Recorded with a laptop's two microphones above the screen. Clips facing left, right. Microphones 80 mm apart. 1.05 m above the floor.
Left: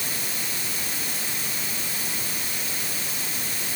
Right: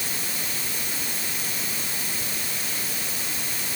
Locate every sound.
Only background noise.